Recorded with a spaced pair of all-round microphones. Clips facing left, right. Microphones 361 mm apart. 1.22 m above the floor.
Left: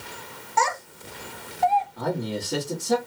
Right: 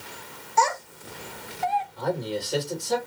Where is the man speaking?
60° left (ahead or behind), 1.5 m.